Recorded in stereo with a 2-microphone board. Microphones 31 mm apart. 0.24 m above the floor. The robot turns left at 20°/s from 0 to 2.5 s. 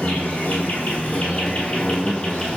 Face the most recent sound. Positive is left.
turn(degrees=25)